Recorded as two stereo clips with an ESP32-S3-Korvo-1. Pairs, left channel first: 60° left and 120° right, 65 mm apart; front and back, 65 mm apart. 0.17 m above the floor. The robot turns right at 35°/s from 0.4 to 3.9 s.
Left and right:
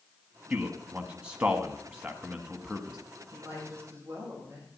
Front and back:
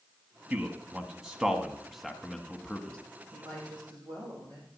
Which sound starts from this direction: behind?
A woman speaking, at 3.3 s.